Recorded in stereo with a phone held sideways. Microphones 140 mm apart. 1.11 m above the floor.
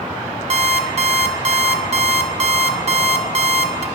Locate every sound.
0.5 s an alarm clock: 50° right (ahead or behind), 0.6 m